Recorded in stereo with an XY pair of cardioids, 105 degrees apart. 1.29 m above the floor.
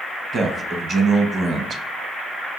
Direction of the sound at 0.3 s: 40° right.